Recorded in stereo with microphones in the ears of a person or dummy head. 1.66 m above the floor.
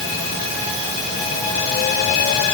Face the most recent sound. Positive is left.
No sound to turn to.